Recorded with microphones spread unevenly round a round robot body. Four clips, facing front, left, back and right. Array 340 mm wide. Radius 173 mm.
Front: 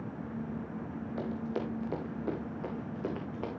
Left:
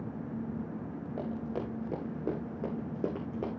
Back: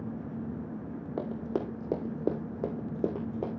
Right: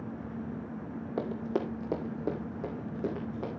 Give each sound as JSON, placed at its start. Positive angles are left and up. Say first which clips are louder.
{"t": 1.2, "sound": "running footsteps", "louder": "right 5 dB, back 3 dB", "azimuth_deg": -125, "distance_m": 1.9}